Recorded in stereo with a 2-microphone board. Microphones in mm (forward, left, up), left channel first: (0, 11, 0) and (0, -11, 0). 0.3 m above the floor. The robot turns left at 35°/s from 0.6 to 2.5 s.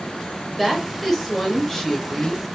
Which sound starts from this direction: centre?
A woman speaking, at 0.6 s.